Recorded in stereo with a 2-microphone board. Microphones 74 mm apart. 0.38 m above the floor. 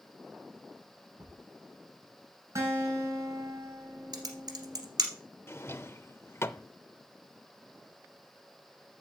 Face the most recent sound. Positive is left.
turn(degrees=35)  # may be behind; listen again after turning